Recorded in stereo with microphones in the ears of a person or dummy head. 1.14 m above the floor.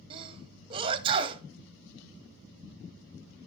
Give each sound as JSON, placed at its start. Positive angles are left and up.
{"t": 0.1, "sound": "a sneeze", "side_deg": -30, "distance_m": 1.5}